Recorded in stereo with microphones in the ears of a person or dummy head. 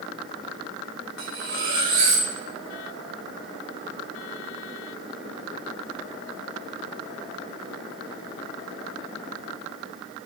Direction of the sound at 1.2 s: 75° right (ahead or behind).